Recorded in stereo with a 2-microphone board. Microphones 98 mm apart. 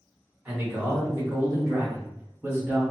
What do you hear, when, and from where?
0.5 s a man speaking: 25° right (ahead or behind), 1.2 m